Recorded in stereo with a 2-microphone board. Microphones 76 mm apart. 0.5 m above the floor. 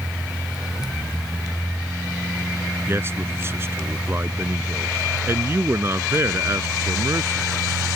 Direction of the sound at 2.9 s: 35° right (ahead or behind).